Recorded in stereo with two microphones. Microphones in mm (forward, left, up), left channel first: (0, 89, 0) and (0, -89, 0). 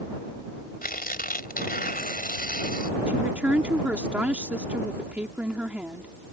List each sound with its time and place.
0.8 s tearing paper: 55° left (ahead or behind)
3.1 s a woman speaking: 10° right (ahead or behind)